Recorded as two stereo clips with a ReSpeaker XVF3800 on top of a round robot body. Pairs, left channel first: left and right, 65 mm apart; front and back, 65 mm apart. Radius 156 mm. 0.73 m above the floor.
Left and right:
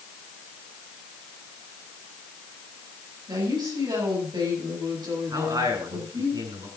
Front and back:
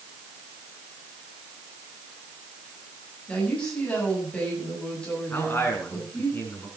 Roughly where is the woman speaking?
Right.